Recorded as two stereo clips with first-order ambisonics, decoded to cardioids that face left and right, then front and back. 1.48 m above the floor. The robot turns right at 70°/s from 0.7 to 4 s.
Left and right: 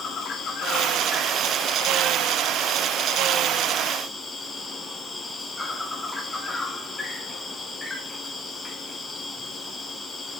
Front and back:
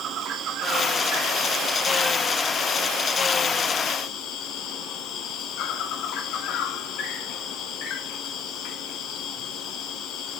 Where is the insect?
140° left, 1.2 m; by 10.4 s 10° left, 1.2 m.